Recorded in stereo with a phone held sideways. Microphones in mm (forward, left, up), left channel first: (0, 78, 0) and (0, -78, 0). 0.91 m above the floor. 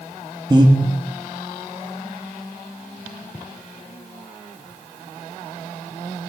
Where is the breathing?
30° right (ahead or behind), 1.3 m.